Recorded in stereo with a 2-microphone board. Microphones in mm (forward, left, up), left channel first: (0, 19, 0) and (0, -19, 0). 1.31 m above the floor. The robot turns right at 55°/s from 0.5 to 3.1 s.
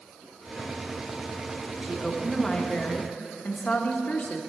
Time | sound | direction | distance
1.8 | a woman speaking | 25° right | 0.8 m